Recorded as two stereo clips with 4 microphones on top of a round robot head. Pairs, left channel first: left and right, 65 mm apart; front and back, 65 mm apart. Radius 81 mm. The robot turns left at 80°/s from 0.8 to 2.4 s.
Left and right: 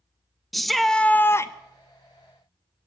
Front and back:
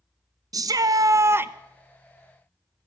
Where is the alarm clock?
I don't hear an alarm clock.